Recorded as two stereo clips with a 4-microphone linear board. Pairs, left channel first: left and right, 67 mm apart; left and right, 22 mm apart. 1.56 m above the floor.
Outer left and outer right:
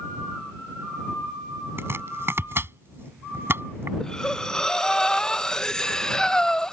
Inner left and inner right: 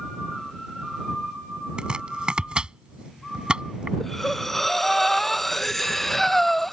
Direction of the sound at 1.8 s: 40° right (ahead or behind).